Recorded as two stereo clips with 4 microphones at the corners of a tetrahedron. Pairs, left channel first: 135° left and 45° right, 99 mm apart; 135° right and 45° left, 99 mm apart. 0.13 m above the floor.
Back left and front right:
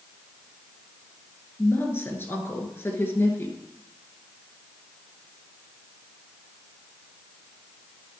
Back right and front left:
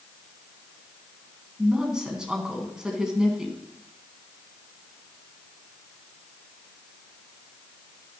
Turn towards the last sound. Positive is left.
turn(degrees=120)